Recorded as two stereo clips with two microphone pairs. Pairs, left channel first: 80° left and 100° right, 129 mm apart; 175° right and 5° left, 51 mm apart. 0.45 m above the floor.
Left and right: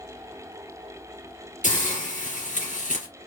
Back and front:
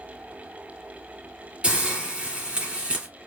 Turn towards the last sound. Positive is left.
turn(degrees=75)